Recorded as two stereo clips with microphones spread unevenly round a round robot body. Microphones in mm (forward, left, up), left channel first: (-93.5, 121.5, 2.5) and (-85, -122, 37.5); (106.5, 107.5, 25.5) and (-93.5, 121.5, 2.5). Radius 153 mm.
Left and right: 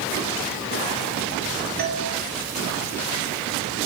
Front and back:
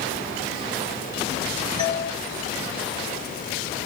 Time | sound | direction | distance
1.8 | a doorbell | 65° right | 2 m